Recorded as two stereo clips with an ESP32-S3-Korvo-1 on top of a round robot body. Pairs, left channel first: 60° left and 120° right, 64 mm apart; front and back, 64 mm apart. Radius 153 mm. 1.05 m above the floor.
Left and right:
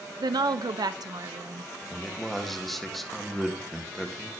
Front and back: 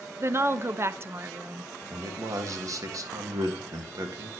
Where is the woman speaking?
130° right, 0.8 m.